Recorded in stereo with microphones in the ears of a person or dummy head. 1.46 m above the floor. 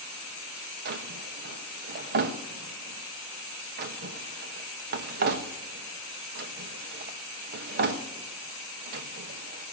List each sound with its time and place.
0.8 s a drawer: 45° right (ahead or behind), 0.9 m